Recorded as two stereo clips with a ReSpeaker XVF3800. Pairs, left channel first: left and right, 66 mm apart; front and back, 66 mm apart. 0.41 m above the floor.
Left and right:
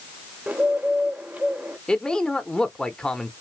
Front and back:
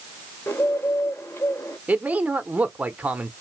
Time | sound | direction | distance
0.5 | a bird | 30° right | 1.0 m
1.9 | a man speaking | 150° left | 0.8 m